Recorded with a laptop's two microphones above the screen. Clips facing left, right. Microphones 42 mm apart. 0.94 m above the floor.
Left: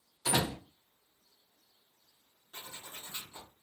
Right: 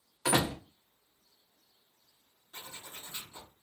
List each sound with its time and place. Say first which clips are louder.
0.2 s a door slam: right 3 dB; 50° right (ahead or behind), 0.9 m
2.5 s a zipper: even; 25° left (ahead or behind), 0.9 m